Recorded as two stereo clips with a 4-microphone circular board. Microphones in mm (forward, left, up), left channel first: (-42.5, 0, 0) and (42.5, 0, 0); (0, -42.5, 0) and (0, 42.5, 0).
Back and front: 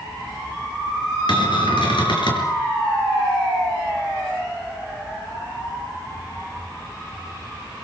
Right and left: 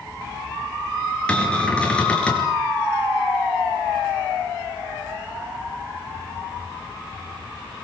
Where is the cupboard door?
165° right, 5 m.